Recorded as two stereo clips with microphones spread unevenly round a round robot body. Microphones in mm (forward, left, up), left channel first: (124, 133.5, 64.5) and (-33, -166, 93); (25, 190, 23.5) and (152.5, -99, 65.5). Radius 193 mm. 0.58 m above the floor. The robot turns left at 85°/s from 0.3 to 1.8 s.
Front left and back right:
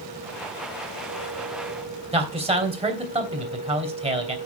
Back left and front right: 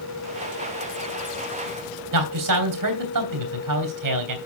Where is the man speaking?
45° right, 3 m.